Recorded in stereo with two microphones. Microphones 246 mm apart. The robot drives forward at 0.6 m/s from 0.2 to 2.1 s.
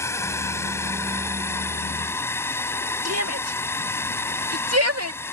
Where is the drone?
10° left (ahead or behind).